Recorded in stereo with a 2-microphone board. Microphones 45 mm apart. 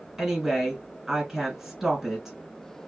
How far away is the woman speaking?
About 2.0 m.